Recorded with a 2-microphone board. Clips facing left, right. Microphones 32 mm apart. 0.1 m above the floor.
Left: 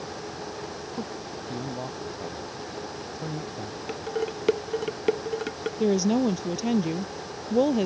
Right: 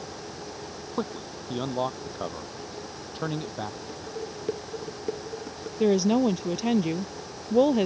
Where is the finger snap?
No finger snap in this recording.